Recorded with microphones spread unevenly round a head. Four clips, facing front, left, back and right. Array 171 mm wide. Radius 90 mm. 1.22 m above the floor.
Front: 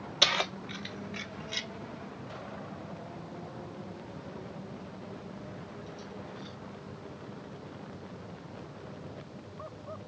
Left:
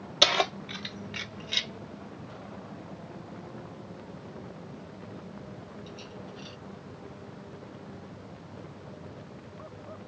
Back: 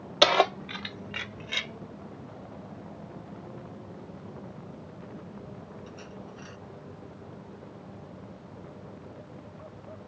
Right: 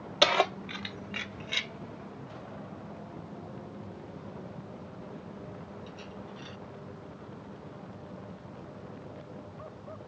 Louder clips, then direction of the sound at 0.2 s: Right 2 dB, back 10 dB; 175° right.